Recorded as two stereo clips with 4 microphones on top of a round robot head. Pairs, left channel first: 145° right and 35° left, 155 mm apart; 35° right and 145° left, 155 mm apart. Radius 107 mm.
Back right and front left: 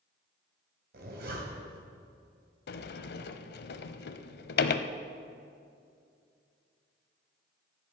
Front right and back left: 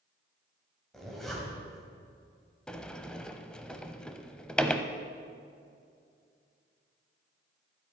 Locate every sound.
0.9 s a zipper: 50° left, 3 m
2.7 s a sliding door: 120° right, 0.7 m